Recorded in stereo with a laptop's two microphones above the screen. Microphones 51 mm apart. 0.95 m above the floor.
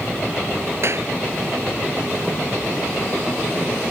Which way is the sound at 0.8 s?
60° right (ahead or behind).